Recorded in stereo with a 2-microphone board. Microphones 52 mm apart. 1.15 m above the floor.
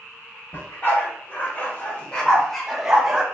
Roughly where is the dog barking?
Left.